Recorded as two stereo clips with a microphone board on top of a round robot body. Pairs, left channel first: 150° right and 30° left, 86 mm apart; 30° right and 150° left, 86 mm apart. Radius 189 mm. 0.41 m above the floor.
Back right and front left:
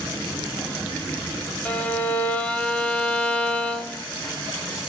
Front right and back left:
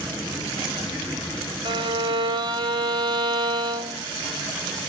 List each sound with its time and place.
1.6 s a violin: 140° left, 1.0 m